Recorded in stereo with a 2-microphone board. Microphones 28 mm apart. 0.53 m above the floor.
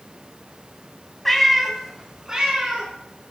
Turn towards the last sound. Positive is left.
turn(degrees=-35)  # may be behind; listen again after turning